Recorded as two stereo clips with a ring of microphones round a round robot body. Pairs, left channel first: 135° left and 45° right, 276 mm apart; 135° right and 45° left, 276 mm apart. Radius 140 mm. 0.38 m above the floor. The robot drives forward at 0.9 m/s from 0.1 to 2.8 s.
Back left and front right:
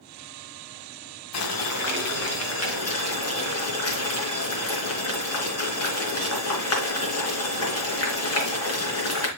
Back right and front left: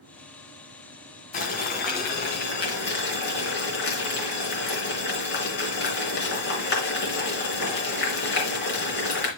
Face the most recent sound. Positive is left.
turn(degrees=170)